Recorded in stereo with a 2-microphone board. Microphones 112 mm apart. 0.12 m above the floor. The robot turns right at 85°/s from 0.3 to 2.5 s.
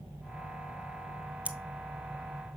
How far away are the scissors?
About 0.9 m.